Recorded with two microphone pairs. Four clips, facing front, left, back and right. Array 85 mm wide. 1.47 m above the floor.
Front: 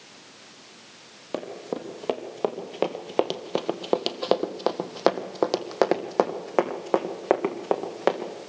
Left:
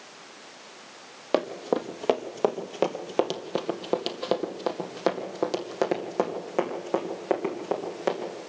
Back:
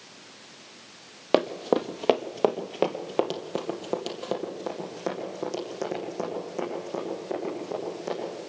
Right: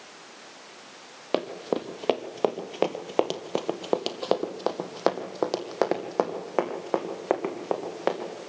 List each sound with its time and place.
1.3 s running footsteps: 175° left, 1.8 m; by 8.3 s 20° right, 4.5 m